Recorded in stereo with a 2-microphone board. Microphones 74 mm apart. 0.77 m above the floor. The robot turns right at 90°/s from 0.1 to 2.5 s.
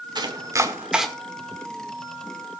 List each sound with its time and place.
0.1 s chopping: 75° right (ahead or behind), 1.6 m; by 1.1 s centre (ahead or behind), 1.6 m